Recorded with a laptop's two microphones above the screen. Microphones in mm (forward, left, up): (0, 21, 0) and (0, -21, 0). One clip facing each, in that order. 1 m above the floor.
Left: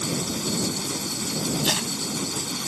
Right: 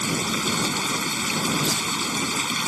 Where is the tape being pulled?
80° left.